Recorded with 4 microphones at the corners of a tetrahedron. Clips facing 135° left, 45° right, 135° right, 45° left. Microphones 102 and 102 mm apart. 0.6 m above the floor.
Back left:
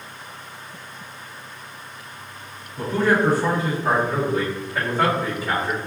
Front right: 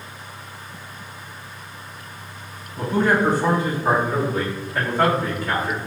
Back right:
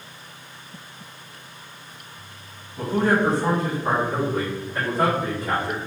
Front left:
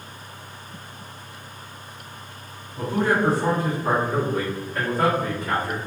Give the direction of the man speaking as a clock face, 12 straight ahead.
12 o'clock.